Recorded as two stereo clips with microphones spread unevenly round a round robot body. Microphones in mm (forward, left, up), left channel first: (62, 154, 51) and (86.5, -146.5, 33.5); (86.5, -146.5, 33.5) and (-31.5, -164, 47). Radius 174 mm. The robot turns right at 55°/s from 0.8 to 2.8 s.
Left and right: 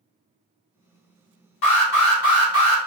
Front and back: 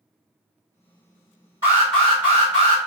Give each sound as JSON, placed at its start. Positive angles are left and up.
{"t": 1.6, "sound": "an alarm", "azimuth_deg": 115, "distance_m": 1.7}